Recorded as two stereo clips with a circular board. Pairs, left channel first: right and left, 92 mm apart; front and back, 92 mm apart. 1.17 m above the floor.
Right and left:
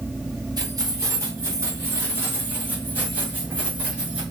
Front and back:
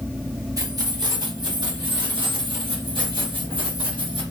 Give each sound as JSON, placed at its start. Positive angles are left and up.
{"t": 0.6, "sound": "keys jangling", "azimuth_deg": 135, "distance_m": 1.3}